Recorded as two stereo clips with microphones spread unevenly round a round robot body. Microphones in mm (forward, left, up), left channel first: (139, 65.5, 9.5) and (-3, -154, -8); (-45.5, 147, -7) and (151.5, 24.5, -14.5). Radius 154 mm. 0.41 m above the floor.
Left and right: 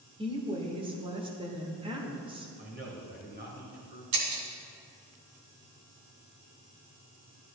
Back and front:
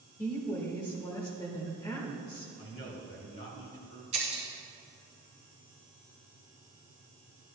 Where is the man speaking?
170° right, 2 m.